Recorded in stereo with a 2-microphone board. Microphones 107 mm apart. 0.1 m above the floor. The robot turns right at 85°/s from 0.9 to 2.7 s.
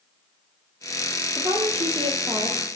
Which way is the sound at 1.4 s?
135° right.